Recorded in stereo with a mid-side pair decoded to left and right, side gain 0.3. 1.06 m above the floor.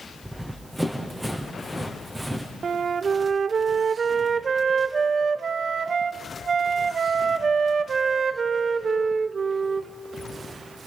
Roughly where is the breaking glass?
I don't hear breaking glass.